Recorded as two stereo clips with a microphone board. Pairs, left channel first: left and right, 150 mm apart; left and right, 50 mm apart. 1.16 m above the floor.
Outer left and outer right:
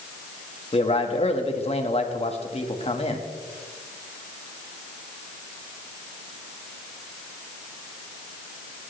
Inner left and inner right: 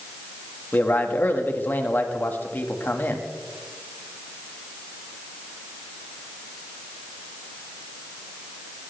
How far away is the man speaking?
About 1.9 m.